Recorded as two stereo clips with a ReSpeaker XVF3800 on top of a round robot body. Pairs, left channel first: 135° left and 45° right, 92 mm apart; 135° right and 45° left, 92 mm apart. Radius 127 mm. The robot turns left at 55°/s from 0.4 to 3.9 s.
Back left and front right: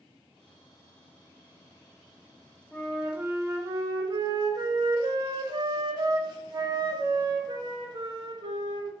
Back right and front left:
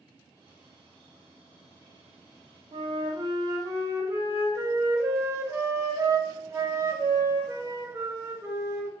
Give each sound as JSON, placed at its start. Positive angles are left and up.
{"t": 2.7, "sound": "a flute", "azimuth_deg": 50, "distance_m": 0.6}